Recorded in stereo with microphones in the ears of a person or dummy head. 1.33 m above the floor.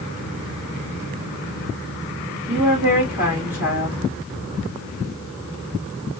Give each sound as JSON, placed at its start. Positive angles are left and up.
{"t": 2.5, "sound": "a woman speaking", "side_deg": -5, "distance_m": 1.9}